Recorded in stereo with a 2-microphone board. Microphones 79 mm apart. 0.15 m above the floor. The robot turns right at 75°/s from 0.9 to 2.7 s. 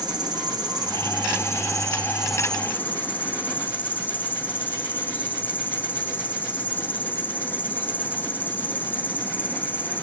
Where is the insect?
110° right, 0.7 m; by 10.0 s 25° left, 0.7 m.